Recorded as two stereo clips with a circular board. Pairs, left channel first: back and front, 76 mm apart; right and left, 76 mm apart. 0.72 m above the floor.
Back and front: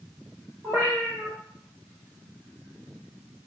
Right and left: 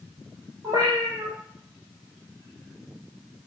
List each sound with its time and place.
0.6 s a cat meowing: 55° left, 6.5 m